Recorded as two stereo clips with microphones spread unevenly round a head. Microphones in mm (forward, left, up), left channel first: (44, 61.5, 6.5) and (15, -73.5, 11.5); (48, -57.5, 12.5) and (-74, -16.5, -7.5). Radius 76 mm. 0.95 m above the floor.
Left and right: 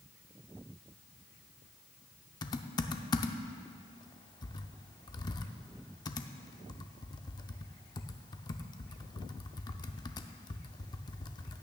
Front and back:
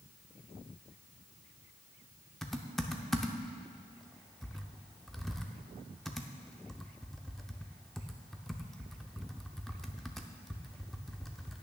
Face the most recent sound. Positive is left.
turn(degrees=50)